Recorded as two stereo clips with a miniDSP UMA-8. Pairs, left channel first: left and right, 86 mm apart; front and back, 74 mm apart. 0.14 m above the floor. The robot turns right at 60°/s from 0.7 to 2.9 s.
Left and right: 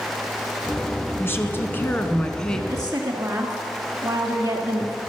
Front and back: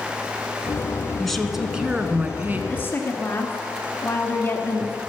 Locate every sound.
1.2 s a woman speaking: 80° left, 1.3 m; by 2.6 s 165° left, 1.3 m
2.7 s a woman speaking: 50° right, 1.6 m; by 5.0 s 35° right, 1.6 m